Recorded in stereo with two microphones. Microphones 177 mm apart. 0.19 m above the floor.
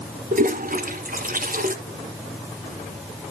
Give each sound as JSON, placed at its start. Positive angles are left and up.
{"t": 0.3, "sound": "a toilet flushing", "side_deg": -50, "distance_m": 1.5}